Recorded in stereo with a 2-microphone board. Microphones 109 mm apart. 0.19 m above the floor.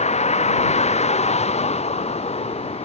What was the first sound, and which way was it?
A vehicle, 90° left.